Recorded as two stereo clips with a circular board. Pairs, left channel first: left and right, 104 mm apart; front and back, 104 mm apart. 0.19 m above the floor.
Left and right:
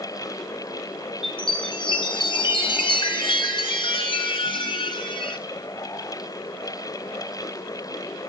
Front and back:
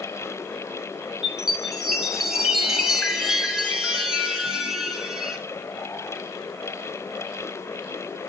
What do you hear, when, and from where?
1.2 s a chime: 95° left, 1.4 m